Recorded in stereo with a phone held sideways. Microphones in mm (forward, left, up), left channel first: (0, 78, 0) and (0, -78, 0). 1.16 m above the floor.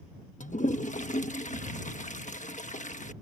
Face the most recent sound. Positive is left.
turn(degrees=50)  # may be behind; listen again after turning